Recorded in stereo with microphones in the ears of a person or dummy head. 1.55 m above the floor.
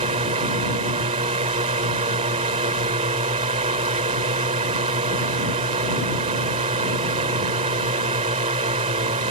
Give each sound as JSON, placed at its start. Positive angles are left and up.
{"t": 0.0, "sound": "a drone", "side_deg": -25}